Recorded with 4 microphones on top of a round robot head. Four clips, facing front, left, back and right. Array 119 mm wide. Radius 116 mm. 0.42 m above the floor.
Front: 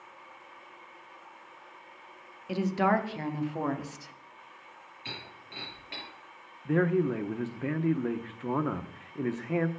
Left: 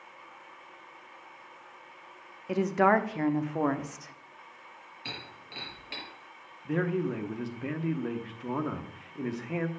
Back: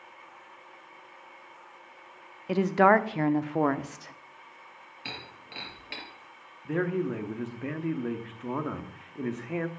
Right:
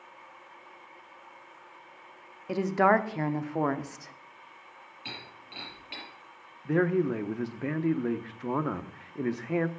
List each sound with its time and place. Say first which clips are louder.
2.5 s a woman speaking: even, back 6 dB; 160° right, 0.8 m
5.0 s breaking glass: left 1 dB, back 2 dB; 170° left, 5.5 m
6.7 s a man speaking: right 4 dB, front 3 dB; 65° right, 0.9 m